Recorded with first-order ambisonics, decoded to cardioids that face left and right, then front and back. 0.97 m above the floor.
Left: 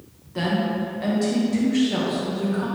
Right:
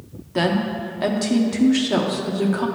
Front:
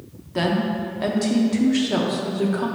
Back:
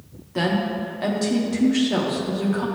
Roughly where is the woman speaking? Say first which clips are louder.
Right 3 dB, front 1 dB; right.